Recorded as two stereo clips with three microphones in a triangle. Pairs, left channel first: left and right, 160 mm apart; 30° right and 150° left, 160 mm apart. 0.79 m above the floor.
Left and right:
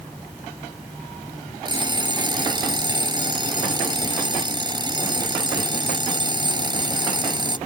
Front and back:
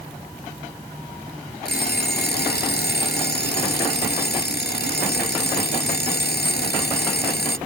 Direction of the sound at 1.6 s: 25° right.